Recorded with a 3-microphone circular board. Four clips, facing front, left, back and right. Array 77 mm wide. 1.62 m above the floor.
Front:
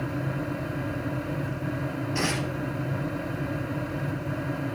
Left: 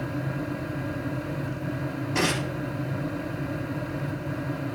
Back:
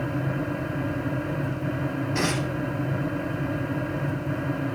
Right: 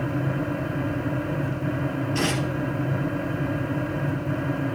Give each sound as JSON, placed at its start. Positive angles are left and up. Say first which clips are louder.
{"t": 2.1, "sound": "tearing paper", "louder": "left 1 dB, back 2 dB", "azimuth_deg": 105, "distance_m": 4.5}